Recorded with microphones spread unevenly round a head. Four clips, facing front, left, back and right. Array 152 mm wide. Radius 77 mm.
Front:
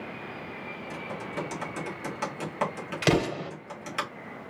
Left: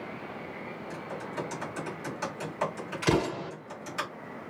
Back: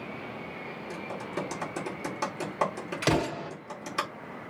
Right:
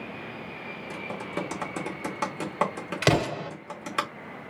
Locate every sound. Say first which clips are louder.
0.9 s typing on a keyboard: right 4 dB, even; 100° right, 1.8 m
3.0 s an explosion: right 2 dB, front 2 dB; 80° right, 2.5 m